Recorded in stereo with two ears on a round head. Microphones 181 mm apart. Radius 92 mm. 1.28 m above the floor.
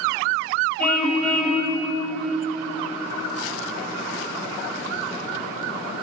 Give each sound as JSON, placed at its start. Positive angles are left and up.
{"t": 0.8, "sound": "a car horn", "side_deg": 5, "distance_m": 4.0}